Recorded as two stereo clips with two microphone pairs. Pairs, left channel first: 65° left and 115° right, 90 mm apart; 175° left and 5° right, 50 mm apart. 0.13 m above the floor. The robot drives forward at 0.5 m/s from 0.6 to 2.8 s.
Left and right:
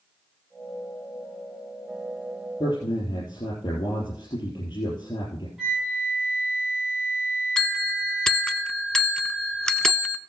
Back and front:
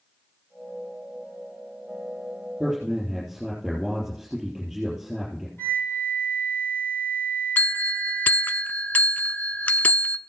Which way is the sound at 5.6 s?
165° left.